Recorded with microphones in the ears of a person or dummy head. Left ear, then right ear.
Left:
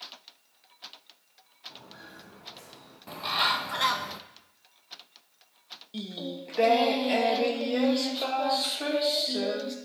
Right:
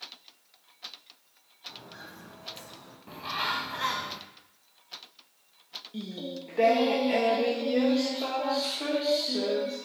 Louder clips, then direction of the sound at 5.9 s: Left 3 dB; 30° left (ahead or behind).